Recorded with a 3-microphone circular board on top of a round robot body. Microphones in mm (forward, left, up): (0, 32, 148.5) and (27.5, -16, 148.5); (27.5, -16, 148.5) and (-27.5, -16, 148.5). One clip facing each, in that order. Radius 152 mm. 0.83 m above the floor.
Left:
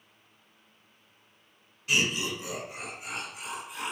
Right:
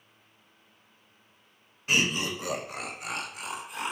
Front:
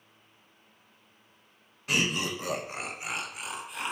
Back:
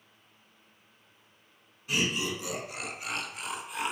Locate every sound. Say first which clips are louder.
1.9 s laughter: right 1 dB, front 1 dB; 10° right, 0.7 m; by 3.9 s 95° right, 0.9 m